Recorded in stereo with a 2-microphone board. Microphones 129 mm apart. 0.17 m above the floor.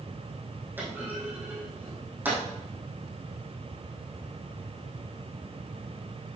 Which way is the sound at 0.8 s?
15° right (ahead or behind).